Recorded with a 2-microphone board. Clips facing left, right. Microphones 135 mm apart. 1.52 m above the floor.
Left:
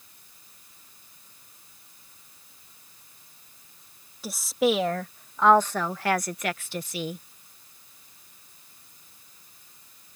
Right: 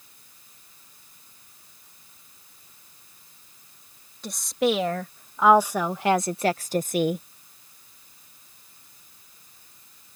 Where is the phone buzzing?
I don't hear a phone buzzing.